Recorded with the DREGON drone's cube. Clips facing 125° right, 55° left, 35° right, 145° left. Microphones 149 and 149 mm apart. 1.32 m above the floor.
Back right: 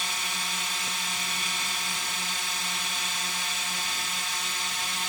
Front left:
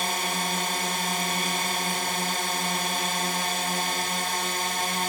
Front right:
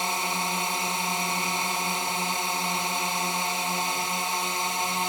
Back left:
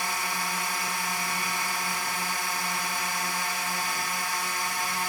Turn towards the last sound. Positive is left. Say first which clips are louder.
# front left 8 dB, front right 3 dB
turn(degrees=30)